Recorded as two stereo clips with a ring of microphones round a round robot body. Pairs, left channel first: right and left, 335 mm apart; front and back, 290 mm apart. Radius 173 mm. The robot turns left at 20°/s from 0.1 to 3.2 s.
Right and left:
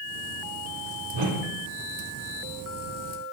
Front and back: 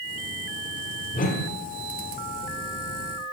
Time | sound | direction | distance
1.1 | a whoosh | 65° left | 1.2 m